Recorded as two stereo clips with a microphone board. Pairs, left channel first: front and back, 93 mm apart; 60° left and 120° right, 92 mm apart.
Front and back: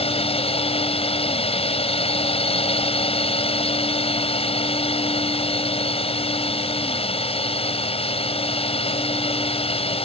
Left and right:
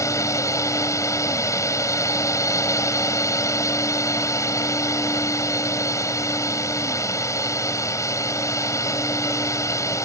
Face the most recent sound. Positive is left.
turn(degrees=0)